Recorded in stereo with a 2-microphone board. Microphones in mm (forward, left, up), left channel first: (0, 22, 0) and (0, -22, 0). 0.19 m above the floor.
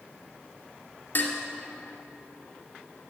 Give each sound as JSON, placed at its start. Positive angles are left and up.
{"t": 1.1, "sound": "dishes clattering", "side_deg": 50, "distance_m": 1.6}